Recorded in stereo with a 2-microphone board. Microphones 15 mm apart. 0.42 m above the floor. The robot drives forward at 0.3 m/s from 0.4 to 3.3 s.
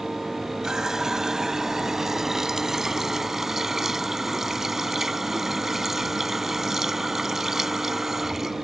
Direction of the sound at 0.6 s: 40° right (ahead or behind).